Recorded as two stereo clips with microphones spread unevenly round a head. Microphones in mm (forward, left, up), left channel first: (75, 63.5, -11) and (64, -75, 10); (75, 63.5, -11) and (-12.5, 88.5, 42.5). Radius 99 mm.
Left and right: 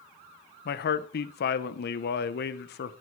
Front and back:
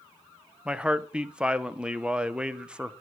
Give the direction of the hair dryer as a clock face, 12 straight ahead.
I don't hear a hair dryer.